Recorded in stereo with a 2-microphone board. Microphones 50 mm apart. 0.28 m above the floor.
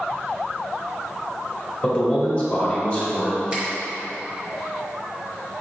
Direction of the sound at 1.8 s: 30° left (ahead or behind).